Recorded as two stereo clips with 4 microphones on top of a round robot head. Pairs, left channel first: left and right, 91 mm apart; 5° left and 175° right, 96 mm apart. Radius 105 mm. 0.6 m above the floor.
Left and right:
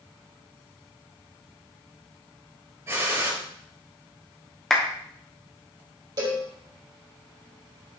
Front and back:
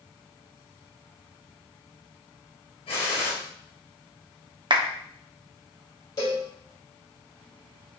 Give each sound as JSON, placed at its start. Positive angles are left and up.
{"t": 2.9, "sound": "a gunshot", "azimuth_deg": -35, "distance_m": 3.0}
{"t": 4.7, "sound": "a clap", "azimuth_deg": 175, "distance_m": 1.5}
{"t": 6.2, "sound": "a cowbell", "azimuth_deg": -50, "distance_m": 4.5}